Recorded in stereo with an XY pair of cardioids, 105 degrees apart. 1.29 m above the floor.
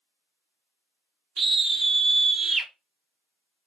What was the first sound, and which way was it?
A scream, 25° right.